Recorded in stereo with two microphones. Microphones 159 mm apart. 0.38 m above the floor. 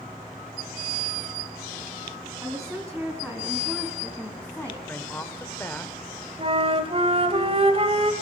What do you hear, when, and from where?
2.4 s a woman speaking: 5° right (ahead or behind), 4.5 m; by 4.8 s 10° left (ahead or behind), 3.5 m
4.9 s a woman speaking: 15° left (ahead or behind), 1.4 m
6.4 s a flute: 40° right (ahead or behind), 1.8 m